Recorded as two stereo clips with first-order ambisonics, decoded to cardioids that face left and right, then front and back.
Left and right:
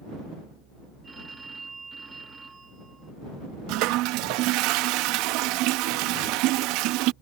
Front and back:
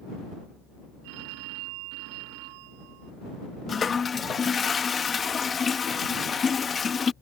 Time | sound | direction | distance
1.0 | a phone ringing | 165° right | ?
3.7 | a toilet flushing | 70° right | ?